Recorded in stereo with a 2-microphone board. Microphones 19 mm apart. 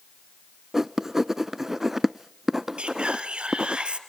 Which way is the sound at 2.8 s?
65° right (ahead or behind).